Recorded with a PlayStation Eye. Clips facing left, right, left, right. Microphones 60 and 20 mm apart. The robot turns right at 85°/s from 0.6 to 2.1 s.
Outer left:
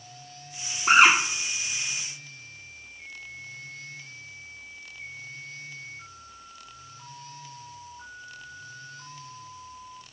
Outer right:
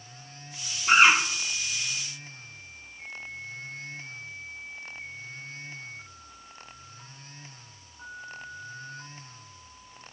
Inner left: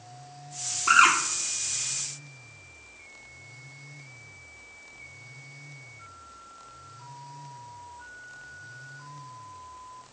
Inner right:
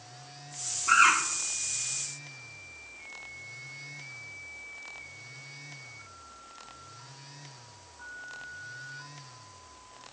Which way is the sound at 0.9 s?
75° left (ahead or behind).